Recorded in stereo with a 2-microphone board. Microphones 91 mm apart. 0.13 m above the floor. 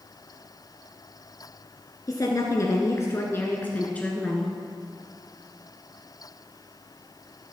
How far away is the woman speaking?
About 1.6 m.